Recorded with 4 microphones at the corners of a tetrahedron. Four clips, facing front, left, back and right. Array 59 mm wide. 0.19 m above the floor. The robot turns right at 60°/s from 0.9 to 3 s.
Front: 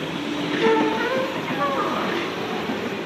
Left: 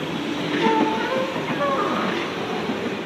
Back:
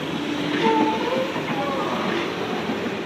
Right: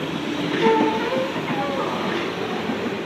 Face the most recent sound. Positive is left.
turn(degrees=130)